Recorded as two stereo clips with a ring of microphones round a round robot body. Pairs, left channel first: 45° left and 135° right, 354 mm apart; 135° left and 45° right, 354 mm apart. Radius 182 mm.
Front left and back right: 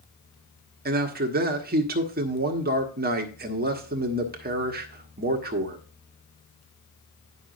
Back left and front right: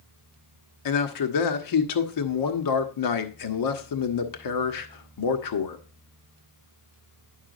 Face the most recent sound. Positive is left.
turn(degrees=160)